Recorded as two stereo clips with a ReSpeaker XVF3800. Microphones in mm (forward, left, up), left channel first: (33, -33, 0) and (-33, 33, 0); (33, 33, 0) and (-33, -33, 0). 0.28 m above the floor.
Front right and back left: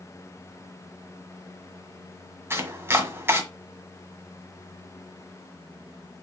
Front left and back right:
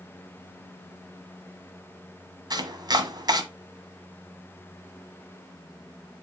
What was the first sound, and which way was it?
Chopping, 165° right.